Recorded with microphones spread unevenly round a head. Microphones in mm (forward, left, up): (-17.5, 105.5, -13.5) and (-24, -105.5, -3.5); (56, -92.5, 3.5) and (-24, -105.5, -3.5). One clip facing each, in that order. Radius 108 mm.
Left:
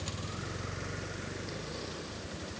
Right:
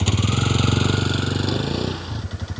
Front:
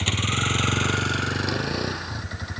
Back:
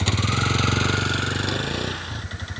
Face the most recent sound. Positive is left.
turn(degrees=-65)